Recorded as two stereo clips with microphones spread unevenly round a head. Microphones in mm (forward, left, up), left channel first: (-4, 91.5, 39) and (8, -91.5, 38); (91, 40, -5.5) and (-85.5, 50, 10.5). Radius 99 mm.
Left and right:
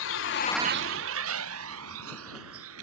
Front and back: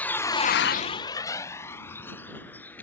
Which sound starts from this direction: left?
A vehicle, at 0.0 s.